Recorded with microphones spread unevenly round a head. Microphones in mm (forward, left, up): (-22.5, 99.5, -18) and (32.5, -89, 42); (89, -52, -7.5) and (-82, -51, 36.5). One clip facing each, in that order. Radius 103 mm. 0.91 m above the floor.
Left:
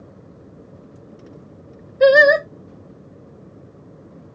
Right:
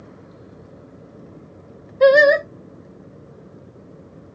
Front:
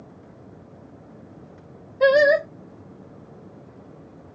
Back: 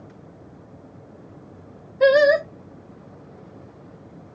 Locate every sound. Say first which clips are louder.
2.0 s singing: even, back 1 dB; 70° left, 0.7 m